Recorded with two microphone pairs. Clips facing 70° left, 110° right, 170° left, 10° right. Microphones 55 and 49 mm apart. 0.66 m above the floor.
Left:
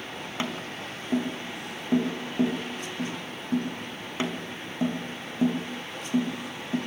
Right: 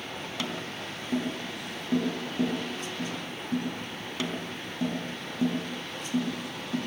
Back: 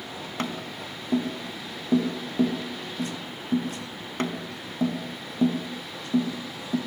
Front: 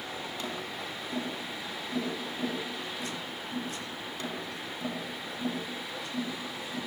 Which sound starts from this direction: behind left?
Tapping, at 0.4 s.